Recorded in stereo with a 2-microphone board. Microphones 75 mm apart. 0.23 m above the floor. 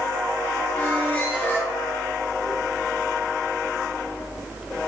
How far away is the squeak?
About 1.2 m.